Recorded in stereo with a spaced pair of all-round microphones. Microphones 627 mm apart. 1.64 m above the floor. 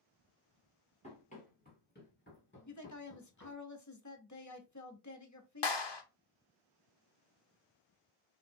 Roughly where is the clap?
Left.